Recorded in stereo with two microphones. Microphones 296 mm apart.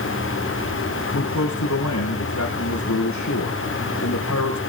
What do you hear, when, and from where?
1.1 s a man speaking: 70° left (ahead or behind), 5 m